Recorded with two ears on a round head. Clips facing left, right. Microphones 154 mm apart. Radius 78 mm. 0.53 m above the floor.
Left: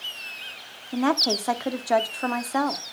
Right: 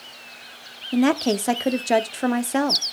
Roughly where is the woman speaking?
Right.